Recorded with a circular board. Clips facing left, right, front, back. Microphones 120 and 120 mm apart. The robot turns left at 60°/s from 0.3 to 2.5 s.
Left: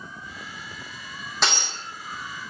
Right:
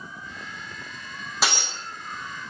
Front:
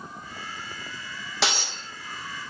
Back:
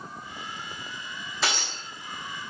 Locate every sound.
1.4 s breaking glass: 5° right, 4 m; by 1.8 s 30° right, 4 m